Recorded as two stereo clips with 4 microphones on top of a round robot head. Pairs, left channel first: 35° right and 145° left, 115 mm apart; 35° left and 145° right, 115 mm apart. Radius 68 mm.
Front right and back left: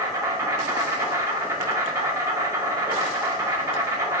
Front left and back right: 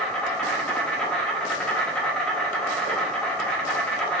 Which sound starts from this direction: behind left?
An insect, at 0.0 s.